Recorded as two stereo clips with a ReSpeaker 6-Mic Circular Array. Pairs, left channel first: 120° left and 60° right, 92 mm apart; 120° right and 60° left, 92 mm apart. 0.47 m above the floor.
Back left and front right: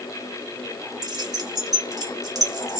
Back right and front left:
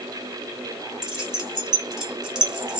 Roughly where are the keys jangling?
Ahead.